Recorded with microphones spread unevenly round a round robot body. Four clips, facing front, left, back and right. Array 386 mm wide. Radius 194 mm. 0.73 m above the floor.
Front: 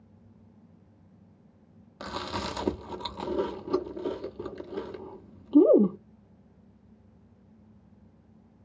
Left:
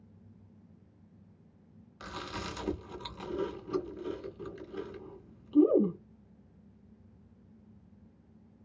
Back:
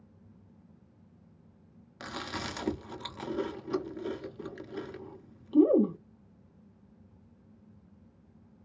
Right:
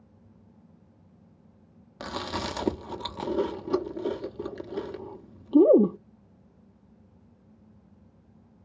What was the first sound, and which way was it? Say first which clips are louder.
Chewing: right 8 dB, front 4 dB; 70° right.